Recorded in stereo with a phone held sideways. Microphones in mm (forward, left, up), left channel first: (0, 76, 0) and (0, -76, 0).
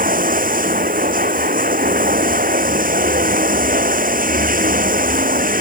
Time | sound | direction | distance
0.0 | running water | 65° right (ahead or behind) | ?